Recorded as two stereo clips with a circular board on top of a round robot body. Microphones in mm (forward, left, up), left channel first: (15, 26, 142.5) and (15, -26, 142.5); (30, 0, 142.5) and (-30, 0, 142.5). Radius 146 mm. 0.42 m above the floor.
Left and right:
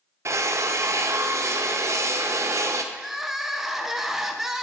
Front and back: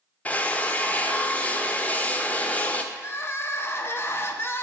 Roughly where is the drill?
Ahead right.